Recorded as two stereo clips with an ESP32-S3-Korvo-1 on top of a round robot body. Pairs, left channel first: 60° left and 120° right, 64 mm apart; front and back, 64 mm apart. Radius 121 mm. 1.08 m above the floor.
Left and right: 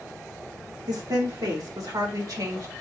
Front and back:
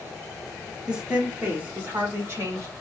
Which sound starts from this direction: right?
A woman speaking, at 0.9 s.